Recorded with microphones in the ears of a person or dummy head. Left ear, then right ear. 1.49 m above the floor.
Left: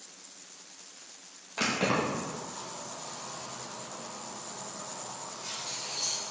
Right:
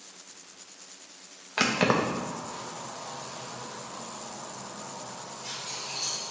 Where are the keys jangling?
65° right (ahead or behind), 1.2 m; by 6.3 s centre (ahead or behind), 3.5 m.